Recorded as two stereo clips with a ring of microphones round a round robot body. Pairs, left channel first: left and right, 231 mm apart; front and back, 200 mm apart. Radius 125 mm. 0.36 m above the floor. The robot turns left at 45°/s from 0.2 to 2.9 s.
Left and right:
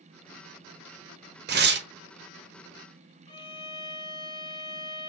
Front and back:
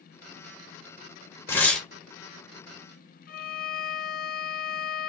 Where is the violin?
25° left, 0.8 m.